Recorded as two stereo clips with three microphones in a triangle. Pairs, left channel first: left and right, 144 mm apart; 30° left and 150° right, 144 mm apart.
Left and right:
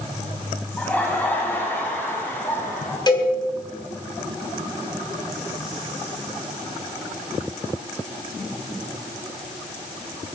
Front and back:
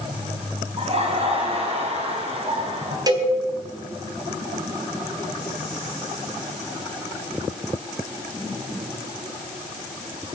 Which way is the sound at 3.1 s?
150° left.